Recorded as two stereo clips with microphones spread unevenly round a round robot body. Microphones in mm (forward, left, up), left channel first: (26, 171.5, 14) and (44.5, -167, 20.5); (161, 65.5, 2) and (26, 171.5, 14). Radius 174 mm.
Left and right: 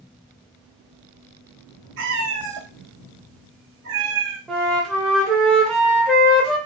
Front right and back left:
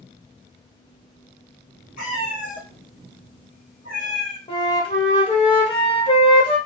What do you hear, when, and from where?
2.0 s a cat meowing: 95° right, 1.4 m
4.5 s a flute: 5° left, 1.1 m